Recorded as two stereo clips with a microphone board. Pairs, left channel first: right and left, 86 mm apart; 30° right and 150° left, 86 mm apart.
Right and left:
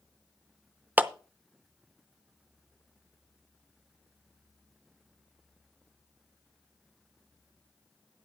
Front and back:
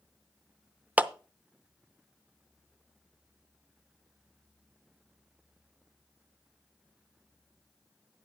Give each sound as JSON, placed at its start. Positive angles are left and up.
{"t": 1.0, "sound": "a clap", "azimuth_deg": 115, "distance_m": 0.6}